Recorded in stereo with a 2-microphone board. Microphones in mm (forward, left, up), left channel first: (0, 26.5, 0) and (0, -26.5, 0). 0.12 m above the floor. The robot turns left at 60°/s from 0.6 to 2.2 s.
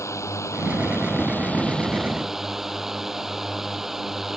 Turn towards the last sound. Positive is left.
turn(degrees=-10)